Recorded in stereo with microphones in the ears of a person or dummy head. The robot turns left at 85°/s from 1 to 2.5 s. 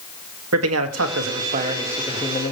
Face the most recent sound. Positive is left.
turn(degrees=140)